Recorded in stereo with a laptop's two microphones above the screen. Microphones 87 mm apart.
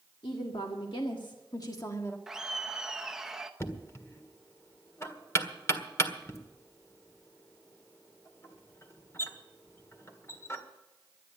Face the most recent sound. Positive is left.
turn(degrees=35)  # may be behind; listen again after turning